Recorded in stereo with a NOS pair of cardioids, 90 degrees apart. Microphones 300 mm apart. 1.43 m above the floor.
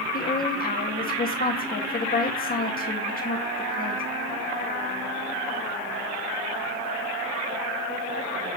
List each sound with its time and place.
0.1 s a woman speaking: 30° left, 1.9 m